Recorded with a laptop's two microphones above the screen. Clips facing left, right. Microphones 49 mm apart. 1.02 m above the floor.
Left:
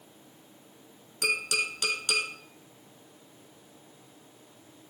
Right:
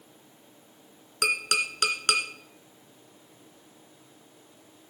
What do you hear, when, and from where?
1.2 s tapping: 65° right (ahead or behind), 2 m